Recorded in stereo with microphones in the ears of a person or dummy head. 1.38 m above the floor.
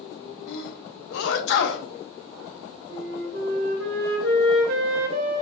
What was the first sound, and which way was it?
A sneeze, 70° left (ahead or behind).